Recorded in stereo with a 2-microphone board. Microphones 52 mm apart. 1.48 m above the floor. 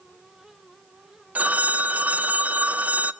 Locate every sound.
1.4 s a phone ringing: 30° right (ahead or behind), 0.7 m